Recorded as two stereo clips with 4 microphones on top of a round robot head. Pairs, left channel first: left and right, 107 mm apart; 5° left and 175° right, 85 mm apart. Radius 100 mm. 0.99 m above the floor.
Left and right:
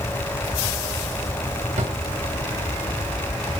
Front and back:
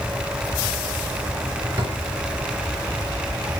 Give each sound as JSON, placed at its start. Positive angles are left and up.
{"t": 1.8, "sound": "a drawer", "azimuth_deg": -110, "distance_m": 2.0}